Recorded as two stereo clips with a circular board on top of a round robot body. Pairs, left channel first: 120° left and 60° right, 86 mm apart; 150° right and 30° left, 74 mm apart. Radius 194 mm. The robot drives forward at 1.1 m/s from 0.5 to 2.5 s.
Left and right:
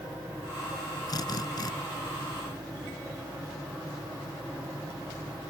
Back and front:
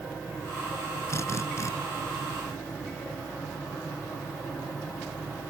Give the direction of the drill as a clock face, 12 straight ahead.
7 o'clock.